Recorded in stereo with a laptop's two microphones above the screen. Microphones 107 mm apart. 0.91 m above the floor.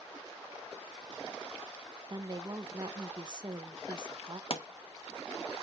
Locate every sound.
2.1 s a woman speaking: 40° right (ahead or behind), 0.7 m
4.5 s a pop: 55° left (ahead or behind), 0.7 m